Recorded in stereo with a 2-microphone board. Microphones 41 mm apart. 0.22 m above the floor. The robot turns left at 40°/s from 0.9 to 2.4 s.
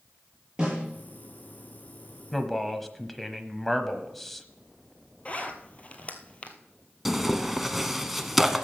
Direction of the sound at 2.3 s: 5° left (ahead or behind).